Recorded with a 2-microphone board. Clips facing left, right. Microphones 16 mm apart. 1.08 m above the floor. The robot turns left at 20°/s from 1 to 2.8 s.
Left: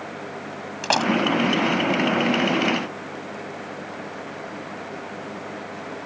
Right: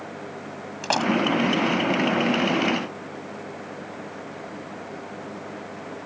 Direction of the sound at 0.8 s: 20° left (ahead or behind).